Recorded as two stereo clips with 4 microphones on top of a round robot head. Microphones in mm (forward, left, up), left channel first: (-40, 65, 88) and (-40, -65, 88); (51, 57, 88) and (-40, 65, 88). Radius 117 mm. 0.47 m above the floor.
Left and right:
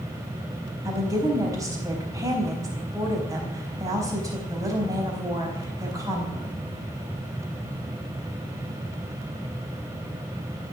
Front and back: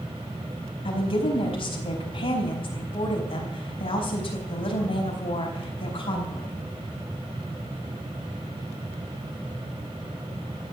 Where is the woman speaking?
25° right, 4.5 m.